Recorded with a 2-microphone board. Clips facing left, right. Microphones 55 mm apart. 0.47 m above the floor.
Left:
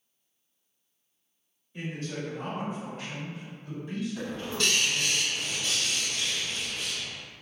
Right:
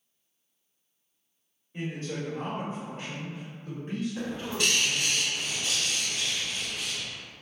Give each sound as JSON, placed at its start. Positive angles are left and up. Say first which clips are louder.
{"t": 1.7, "sound": "a man speaking", "louder": "right 1 dB", "side_deg": -30, "distance_m": 1.4}
{"t": 4.2, "sound": "a bird", "louder": "right 1 dB", "side_deg": -20, "distance_m": 1.5}